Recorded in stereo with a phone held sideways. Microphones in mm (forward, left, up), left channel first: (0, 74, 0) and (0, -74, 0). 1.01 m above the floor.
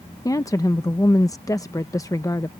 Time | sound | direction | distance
0.2 | a woman speaking | 20° left (ahead or behind) | ?